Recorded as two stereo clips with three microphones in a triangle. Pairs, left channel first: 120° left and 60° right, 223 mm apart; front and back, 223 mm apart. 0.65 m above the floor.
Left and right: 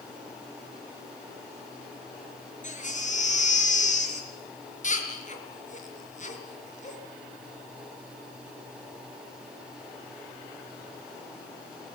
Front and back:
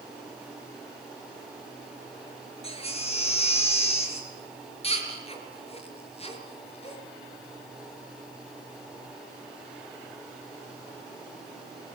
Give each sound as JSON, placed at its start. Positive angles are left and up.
{"t": 2.6, "sound": "a baby crying", "azimuth_deg": 65, "distance_m": 4.0}